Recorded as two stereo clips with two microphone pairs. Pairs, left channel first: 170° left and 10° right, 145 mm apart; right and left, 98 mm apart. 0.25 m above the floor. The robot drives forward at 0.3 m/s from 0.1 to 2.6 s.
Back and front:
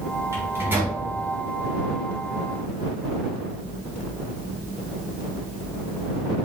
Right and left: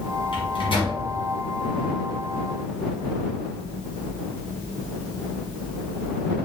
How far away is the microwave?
About 1.4 m.